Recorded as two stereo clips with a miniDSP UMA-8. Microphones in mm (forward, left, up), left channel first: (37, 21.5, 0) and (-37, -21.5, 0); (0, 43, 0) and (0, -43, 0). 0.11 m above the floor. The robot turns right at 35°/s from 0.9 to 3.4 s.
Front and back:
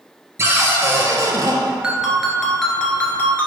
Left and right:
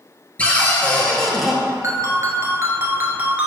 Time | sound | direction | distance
0.4 | a cupboard door | 160° left | 0.7 m
1.8 | a ringtone | 80° right | 0.7 m